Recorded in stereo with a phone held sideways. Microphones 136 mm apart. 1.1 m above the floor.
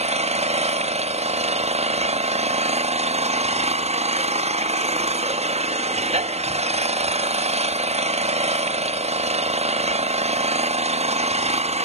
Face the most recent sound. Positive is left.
turn(degrees=-55)  # may be behind; listen again after turning